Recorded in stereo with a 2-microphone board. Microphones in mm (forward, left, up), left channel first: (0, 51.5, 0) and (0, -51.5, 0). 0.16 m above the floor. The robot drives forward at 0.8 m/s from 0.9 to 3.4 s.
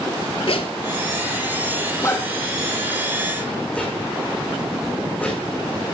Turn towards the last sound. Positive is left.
turn(degrees=15)  # may be behind; listen again after turning